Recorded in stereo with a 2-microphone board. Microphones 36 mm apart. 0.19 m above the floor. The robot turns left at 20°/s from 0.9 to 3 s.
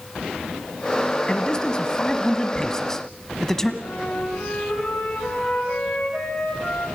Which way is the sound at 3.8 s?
40° left (ahead or behind).